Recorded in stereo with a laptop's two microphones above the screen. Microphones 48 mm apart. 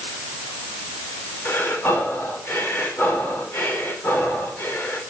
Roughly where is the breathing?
Left.